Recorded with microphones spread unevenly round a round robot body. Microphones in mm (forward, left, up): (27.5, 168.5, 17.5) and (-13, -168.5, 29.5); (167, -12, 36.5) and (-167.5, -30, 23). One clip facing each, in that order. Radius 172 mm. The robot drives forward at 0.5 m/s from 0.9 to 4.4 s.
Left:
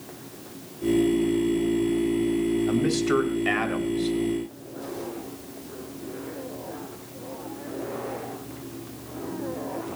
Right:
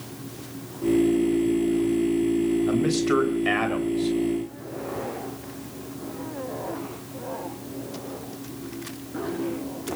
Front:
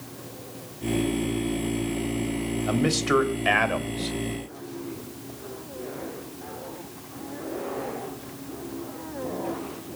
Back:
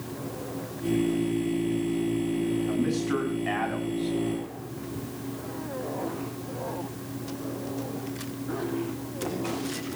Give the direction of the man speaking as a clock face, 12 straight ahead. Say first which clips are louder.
Right 1 dB, front 2 dB; 12 o'clock.